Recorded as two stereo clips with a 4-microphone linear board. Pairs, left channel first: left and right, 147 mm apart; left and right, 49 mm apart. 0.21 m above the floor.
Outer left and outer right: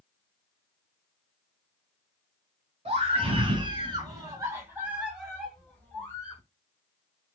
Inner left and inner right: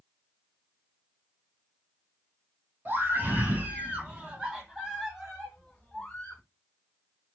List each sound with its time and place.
2.9 s a scream: 45° right (ahead or behind), 1.6 m; by 6.4 s 20° left (ahead or behind), 1.4 m